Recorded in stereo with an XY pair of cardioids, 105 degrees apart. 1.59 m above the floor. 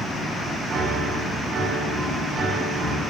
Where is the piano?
55° right, 3.5 m.